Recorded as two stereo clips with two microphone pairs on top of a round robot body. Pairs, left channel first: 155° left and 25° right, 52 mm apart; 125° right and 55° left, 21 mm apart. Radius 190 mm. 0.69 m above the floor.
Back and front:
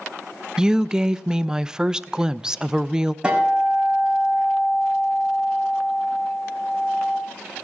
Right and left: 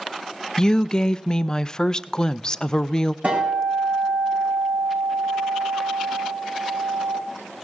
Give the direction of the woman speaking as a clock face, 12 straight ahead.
3 o'clock.